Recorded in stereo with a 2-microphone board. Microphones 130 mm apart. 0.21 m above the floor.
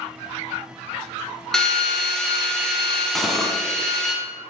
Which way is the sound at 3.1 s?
Centre (ahead or behind).